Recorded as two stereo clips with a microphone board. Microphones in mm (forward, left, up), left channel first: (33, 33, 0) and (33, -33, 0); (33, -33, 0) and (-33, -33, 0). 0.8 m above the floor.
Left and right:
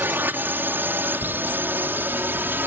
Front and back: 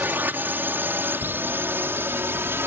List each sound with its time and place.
0.0 s a drone: 135° right; by 2.7 s 140° right